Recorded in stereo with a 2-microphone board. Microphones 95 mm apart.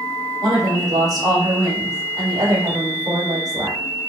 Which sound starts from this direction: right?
A woman speaking, at 0.4 s.